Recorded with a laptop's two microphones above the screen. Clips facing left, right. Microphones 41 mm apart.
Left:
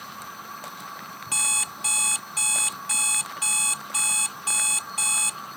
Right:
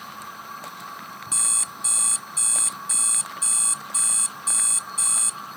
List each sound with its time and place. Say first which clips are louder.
0.0 s a machine running: right 1 dB; 5° right (ahead or behind)
1.3 s an alarm clock: left 5 dB; 60° left (ahead or behind)